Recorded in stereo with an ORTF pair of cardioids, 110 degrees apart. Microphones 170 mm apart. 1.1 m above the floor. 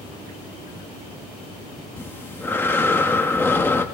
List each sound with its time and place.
2.0 s breathing: 10° left, 1.1 m